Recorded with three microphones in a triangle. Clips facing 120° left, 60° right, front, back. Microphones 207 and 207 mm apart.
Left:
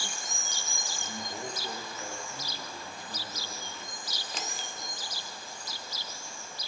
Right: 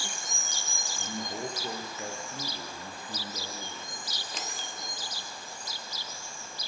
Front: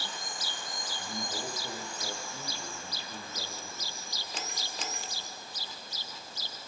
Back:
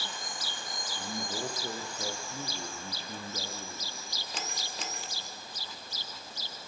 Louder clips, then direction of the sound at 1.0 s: Right 5 dB, back 3 dB; 125° right.